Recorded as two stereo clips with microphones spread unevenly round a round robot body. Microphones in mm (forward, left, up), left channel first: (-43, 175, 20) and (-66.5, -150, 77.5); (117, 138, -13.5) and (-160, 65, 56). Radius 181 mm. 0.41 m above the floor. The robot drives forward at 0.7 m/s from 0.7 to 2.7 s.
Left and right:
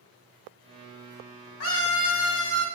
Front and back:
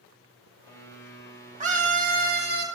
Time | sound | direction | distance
1.6 | a scream | 125° left | 3 m